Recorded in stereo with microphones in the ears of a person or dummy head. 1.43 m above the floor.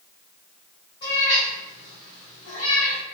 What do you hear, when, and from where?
1.0 s a cat meowing: 30° left (ahead or behind), 1.9 m